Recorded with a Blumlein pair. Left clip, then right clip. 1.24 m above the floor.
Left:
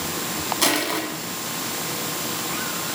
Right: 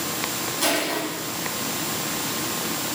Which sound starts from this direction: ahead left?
Crushing, at 0.6 s.